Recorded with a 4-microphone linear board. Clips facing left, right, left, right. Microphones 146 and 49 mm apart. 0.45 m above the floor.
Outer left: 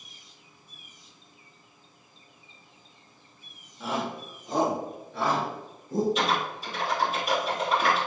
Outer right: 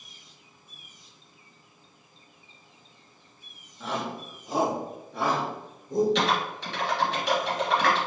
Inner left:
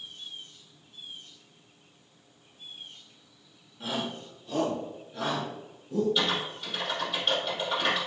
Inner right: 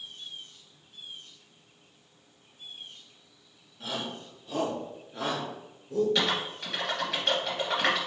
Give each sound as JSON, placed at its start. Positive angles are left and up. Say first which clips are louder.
{"t": 3.8, "sound": "a shout", "louder": "outer left 1 dB, inner left 2 dB", "side_deg": 5, "distance_m": 1.1}
{"t": 6.2, "sound": "typing on a keyboard", "louder": "outer right 1 dB, even", "side_deg": -85, "distance_m": 2.0}